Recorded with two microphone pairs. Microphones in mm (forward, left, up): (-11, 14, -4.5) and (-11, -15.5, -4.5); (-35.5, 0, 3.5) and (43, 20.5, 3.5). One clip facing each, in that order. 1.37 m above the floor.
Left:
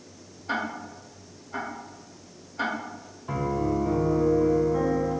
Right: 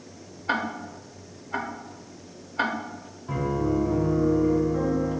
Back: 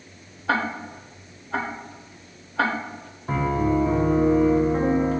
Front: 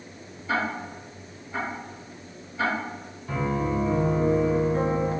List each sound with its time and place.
0.5 s ticking: 145° right, 0.6 m
3.3 s a piano: 145° left, 0.8 m